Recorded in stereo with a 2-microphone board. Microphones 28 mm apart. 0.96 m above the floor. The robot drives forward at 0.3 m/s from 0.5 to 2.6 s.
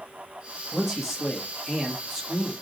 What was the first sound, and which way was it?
A man speaking, 20° right (ahead or behind).